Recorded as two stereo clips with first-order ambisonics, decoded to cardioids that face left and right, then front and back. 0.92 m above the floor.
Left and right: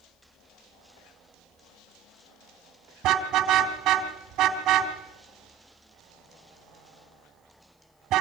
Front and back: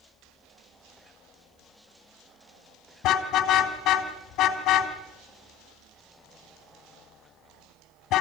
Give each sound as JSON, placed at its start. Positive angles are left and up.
{"t": 3.0, "sound": "a car horn", "azimuth_deg": -45, "distance_m": 2.5}